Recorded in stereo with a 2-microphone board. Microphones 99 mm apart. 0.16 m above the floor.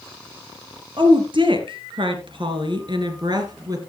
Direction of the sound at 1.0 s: 55° right (ahead or behind).